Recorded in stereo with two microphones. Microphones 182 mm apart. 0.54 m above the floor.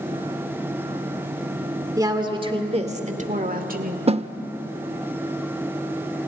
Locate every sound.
2.0 s a woman speaking: 20° right (ahead or behind), 1.6 m; by 4.0 s 55° right (ahead or behind), 1.9 m
4.1 s a snare drum: 35° right (ahead or behind), 0.5 m